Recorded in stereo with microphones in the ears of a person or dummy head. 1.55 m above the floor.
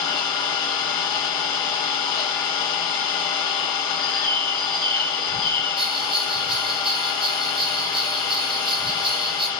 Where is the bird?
20° left (ahead or behind), 4 m.